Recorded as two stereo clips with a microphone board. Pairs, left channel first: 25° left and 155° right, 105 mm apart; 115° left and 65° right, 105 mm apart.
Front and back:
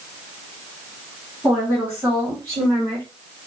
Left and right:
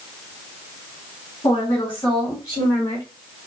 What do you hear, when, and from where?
1.4 s a woman speaking: 135° left, 2.5 m; by 3.1 s 160° left, 3 m